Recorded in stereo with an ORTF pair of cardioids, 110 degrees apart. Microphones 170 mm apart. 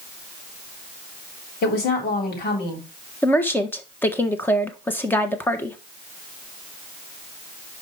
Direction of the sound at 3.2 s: 10° left.